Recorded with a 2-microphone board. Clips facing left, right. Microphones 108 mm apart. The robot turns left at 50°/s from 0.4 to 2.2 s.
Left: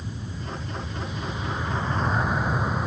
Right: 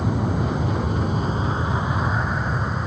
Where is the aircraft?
80° right; by 2.9 s 5° left (ahead or behind).